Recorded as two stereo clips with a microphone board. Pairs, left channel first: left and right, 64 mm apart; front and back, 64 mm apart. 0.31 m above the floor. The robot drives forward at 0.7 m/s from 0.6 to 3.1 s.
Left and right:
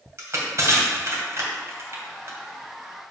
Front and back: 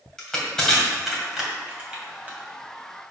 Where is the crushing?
80° right, 2 m; by 2.4 s 120° right, 2.5 m.